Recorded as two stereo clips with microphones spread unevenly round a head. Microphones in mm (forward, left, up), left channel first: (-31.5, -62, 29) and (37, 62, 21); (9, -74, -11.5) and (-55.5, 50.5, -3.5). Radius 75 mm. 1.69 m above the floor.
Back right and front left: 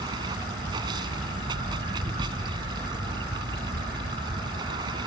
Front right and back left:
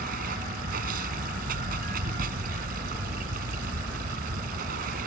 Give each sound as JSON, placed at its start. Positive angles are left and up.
{"t": 0.0, "sound": "running water", "azimuth_deg": 125}